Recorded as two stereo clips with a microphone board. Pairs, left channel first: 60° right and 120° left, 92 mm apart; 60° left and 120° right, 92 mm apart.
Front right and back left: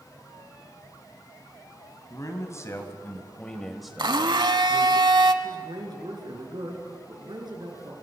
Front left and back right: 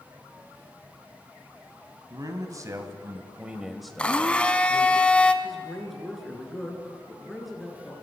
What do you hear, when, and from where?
2.1 s a man speaking: 95° right, 2.5 m; by 5.0 s 85° left, 1.9 m
4.0 s a blender: 135° left, 0.9 m
5.4 s a man speaking: 150° left, 4 m